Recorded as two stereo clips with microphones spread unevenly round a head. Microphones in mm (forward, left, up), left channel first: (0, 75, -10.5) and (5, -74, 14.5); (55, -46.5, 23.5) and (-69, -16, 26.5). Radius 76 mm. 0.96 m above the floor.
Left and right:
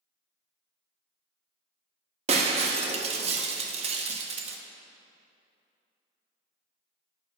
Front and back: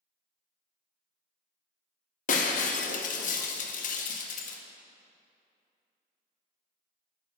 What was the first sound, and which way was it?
Breaking glass, 35° right.